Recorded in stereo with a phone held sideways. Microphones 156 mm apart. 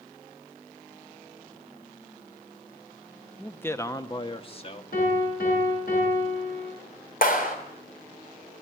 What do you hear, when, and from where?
3.4 s a man speaking: 5° left (ahead or behind), 1.0 m; by 4.8 s 40° left (ahead or behind), 1.9 m
4.9 s a piano: 65° left (ahead or behind), 9 m
7.2 s a clap: 65° left (ahead or behind), 3 m